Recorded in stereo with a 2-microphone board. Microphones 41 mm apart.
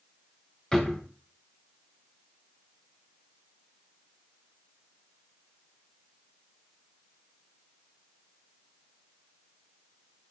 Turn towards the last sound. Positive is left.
turn(degrees=20)  # may be behind; listen again after turning